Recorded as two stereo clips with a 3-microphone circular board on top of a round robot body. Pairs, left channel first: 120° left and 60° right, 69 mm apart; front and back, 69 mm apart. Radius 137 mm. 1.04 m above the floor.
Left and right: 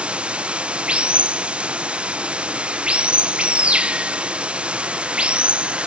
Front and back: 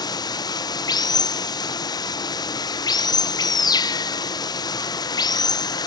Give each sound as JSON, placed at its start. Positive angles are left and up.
{"t": 0.0, "sound": "running water", "azimuth_deg": 15, "distance_m": 0.7}